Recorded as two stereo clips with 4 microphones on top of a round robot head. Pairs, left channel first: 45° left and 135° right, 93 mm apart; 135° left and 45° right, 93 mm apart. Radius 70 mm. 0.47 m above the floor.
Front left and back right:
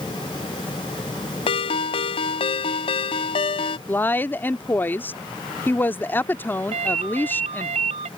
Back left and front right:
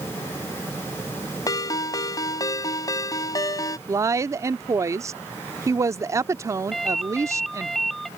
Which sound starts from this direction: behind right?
A ringtone, at 6.7 s.